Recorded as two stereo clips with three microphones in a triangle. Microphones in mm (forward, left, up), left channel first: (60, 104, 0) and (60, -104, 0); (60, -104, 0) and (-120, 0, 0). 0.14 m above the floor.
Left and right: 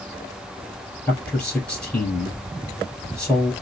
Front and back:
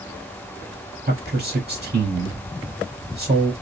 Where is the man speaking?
175° left, 2 m.